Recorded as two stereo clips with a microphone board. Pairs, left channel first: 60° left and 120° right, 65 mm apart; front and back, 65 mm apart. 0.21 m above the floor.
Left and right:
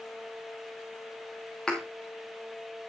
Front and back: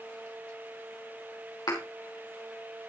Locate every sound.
1.7 s a thud: 20° right, 4 m